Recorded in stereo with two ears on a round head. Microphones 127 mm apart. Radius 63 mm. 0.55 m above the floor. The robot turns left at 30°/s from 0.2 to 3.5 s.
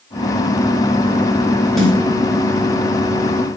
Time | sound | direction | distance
1.8 | a snare drum | centre (ahead or behind) | 5.5 m